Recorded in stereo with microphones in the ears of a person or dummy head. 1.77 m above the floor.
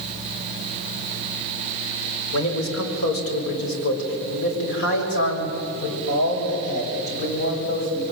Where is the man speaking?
80° left, 5 m; by 8.1 s 55° left (ahead or behind), 9 m.